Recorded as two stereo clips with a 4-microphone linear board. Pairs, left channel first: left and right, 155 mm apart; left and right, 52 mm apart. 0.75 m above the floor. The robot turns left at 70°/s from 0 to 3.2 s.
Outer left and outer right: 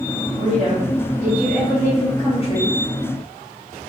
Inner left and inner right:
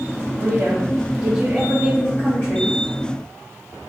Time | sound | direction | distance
0.4 | a woman speaking | 95° right | 1.2 m